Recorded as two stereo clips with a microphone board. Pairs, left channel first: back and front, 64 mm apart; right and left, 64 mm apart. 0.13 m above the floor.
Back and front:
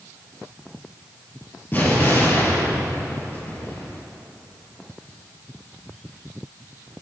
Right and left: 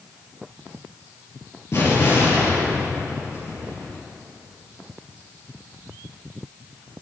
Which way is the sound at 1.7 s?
125° right.